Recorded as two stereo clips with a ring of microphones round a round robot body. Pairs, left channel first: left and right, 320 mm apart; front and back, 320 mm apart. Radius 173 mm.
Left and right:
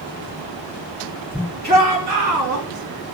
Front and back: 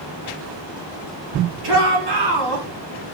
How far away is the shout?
About 7 m.